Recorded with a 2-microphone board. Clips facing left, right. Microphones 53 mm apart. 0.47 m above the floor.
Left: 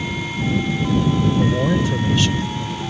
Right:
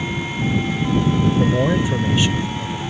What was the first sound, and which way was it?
A man speaking, 20° right (ahead or behind).